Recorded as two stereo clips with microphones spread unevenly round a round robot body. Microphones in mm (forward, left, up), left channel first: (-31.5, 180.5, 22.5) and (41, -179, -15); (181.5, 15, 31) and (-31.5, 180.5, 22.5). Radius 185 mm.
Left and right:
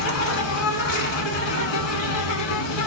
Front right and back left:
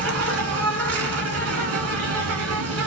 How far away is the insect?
About 1.0 m.